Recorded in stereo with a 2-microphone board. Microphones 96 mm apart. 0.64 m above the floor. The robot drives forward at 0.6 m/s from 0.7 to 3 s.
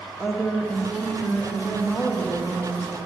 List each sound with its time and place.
0.2 s a woman speaking: 10° left (ahead or behind), 1.4 m; by 3.0 s 5° left (ahead or behind), 2.5 m